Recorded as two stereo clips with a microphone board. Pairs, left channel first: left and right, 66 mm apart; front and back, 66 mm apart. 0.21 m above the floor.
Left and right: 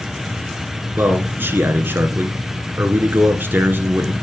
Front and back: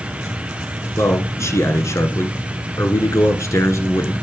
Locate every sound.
1.0 s a man speaking: 35° right, 2 m